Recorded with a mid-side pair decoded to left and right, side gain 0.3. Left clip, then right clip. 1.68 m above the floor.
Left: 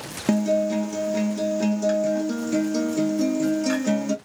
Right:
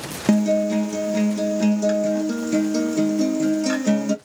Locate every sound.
0.3 s a guitar: 25° right, 0.8 m